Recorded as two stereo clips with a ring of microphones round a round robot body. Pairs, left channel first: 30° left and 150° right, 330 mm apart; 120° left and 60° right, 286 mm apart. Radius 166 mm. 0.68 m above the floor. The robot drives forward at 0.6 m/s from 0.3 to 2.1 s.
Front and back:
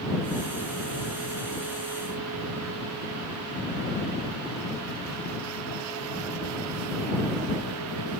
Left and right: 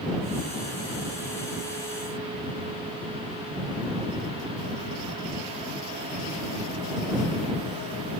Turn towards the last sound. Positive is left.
No sound to turn to.